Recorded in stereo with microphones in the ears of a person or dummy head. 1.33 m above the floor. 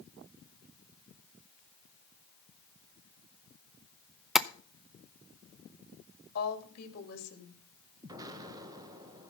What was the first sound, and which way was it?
Tapping, centre (ahead or behind).